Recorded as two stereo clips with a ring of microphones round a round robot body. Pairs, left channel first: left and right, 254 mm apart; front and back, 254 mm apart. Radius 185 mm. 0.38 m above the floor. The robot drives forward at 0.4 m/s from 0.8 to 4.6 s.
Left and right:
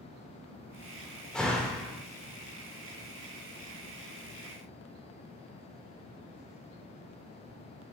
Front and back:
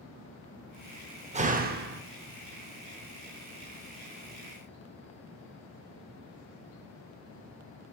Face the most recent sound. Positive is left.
turn(degrees=180)